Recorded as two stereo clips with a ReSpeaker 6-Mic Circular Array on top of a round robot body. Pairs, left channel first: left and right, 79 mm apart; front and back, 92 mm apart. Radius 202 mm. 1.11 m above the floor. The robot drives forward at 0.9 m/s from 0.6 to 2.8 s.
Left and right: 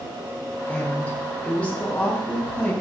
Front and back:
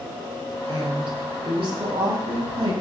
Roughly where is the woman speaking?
Behind.